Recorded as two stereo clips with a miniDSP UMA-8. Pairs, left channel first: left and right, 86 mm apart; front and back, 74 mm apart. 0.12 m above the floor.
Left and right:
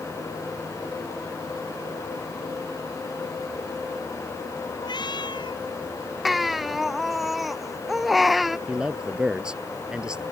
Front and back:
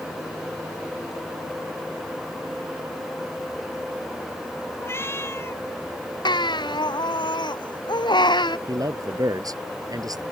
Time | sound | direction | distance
4.8 | a cat meowing | 55° left | ?
6.2 | a baby crying | straight ahead | ?
8.7 | a man speaking | 170° right | ?